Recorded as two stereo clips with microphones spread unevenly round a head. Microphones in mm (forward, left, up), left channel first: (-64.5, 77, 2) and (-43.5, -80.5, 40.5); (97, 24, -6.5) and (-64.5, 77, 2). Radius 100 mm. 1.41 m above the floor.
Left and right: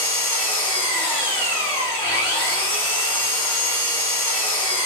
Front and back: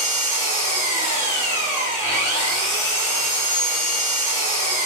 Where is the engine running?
175° right, 1.4 m.